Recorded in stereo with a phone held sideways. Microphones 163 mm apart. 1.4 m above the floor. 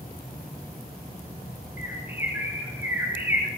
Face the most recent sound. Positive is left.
turn(degrees=-15)  # may be behind; listen again after turning